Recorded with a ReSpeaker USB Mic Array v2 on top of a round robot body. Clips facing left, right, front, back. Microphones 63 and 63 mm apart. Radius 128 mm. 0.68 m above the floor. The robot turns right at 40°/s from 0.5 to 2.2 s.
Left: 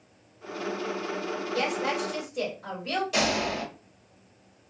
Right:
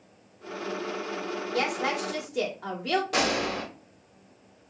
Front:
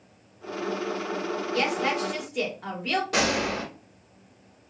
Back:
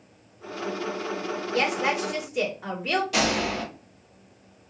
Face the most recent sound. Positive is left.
turn(degrees=-45)